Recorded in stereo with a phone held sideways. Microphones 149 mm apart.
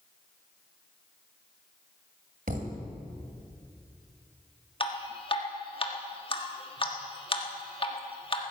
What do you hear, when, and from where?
2.5 s a thud: 65° right (ahead or behind), 1.7 m
4.8 s dripping: 35° left (ahead or behind), 1.5 m